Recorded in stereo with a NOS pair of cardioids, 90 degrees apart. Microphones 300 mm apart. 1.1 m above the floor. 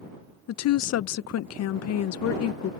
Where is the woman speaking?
60° left.